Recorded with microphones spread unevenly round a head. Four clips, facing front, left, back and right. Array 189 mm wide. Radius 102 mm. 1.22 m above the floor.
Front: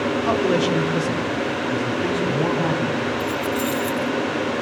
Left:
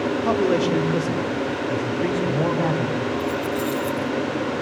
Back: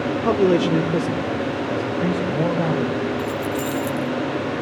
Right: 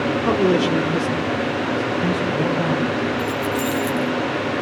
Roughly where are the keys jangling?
Behind.